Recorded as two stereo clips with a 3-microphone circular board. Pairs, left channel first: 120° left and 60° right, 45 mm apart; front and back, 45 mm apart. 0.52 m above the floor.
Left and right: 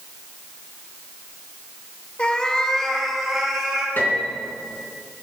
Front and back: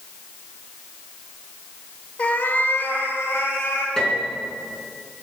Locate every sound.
2.2 s a cat meowing: 55° left, 1.1 m; by 3.9 s 25° left, 3 m
4.0 s a piano: 80° left, 4 m